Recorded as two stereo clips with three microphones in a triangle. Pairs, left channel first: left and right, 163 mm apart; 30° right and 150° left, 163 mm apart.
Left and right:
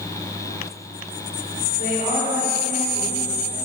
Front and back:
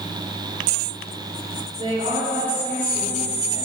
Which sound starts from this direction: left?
A woman speaking, at 1.8 s.